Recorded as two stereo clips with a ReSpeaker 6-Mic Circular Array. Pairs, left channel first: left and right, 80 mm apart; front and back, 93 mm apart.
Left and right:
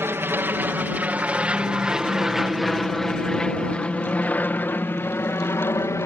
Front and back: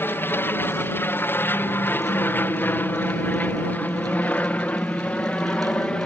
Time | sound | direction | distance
0.0 | an aircraft | 50° right | ?